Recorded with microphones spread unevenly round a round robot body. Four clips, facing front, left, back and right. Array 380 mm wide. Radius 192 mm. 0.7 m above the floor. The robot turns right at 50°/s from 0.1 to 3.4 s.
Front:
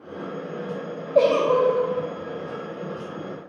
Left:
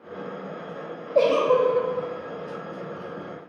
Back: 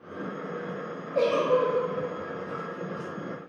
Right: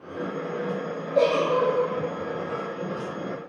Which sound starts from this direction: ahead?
A giggle, at 1.1 s.